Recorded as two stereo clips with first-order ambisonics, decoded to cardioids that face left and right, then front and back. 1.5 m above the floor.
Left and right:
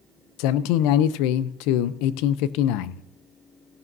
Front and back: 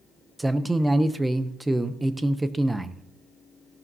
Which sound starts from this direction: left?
A man speaking, at 0.4 s.